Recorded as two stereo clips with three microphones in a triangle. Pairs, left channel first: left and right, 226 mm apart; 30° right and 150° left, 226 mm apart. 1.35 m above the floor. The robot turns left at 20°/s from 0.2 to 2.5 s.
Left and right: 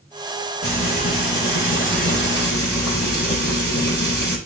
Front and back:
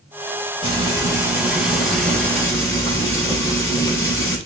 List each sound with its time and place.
0.6 s frying: 85° left, 4.5 m; by 4.4 s 50° left, 4.5 m